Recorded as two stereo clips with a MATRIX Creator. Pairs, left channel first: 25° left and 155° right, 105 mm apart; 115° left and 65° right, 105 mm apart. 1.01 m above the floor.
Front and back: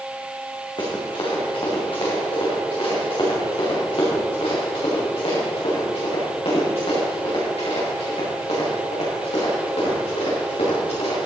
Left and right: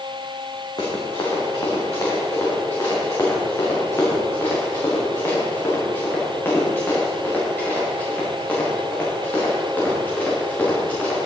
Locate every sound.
0.8 s running footsteps: 60° left, 5 m; by 11.3 s 35° left, 9.5 m